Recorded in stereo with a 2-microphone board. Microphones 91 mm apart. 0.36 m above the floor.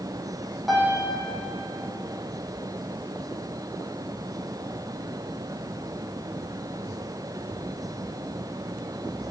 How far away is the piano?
About 7.5 m.